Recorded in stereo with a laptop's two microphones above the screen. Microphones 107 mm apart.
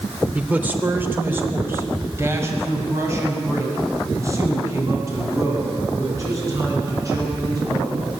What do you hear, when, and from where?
0.3 s a man speaking: 15° right (ahead or behind), 3 m; by 7.9 s 30° right (ahead or behind), 13.5 m